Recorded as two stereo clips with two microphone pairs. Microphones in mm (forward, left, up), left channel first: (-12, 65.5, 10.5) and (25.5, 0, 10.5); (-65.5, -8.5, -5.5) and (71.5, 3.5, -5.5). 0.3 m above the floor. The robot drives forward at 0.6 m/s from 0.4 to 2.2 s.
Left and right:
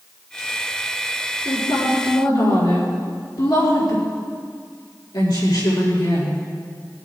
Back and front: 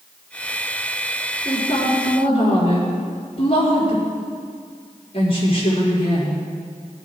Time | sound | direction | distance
1.4 | a woman speaking | 135° left | 4.5 m